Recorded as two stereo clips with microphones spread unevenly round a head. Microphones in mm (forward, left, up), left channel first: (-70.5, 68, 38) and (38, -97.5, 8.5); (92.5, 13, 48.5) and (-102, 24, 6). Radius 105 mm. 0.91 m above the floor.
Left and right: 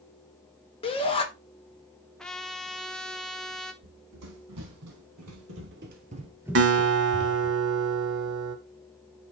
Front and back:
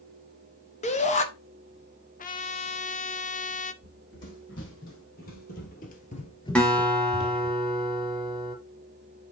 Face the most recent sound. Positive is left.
turn(degrees=-80)